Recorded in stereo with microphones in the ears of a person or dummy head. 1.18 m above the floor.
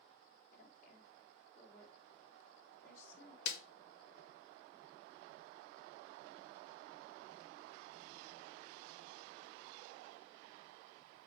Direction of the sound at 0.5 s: 55° left (ahead or behind).